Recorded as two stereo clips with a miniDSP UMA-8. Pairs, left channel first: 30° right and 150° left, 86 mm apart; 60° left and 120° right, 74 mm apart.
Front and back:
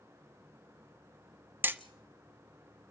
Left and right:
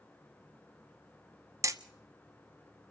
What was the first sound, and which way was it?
Hammering, 150° right.